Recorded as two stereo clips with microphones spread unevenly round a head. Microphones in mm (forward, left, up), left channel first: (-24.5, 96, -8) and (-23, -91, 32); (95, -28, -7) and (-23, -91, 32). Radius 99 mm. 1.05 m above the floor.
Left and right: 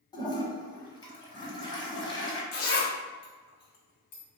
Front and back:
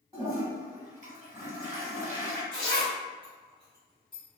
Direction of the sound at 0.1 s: 165° left.